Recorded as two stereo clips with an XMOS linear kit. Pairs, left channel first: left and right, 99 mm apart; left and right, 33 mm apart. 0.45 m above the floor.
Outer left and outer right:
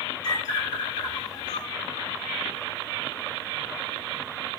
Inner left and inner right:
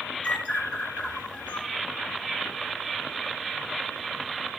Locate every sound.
0.2 s a bird: 45° left (ahead or behind), 2 m